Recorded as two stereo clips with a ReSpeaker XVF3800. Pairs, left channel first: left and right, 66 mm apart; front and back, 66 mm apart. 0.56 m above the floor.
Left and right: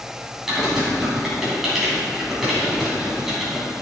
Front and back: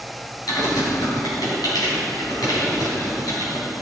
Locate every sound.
0.5 s typing on a keyboard: 5° right, 3 m